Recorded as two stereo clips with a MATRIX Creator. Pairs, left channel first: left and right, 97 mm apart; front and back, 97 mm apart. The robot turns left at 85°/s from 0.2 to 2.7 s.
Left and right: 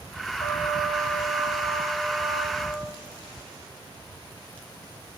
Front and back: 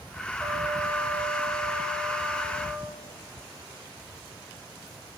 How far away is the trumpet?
About 4.5 m.